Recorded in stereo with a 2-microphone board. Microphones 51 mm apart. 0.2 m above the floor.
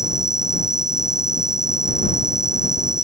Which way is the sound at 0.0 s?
10° right (ahead or behind).